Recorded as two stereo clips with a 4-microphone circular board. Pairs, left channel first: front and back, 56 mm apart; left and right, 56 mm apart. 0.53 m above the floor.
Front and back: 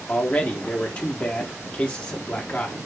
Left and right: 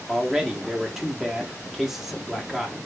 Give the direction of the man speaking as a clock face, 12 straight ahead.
1 o'clock.